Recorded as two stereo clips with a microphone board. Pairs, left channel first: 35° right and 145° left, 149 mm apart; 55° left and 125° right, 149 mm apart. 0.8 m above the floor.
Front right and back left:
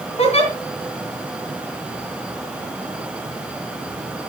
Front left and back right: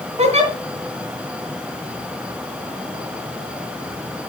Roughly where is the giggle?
Right.